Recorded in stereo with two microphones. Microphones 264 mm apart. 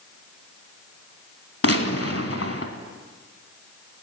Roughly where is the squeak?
I don't hear a squeak.